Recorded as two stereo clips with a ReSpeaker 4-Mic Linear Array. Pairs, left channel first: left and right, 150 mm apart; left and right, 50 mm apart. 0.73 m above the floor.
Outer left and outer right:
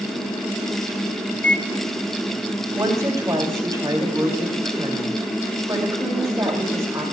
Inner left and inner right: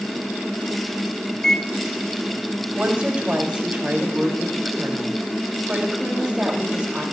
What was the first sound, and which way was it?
A microwave, 10° left (ahead or behind).